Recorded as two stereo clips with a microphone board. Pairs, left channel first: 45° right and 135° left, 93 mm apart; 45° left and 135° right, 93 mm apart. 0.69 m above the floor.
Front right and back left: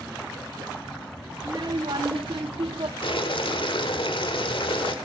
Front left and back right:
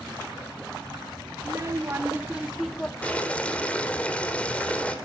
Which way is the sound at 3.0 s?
30° right.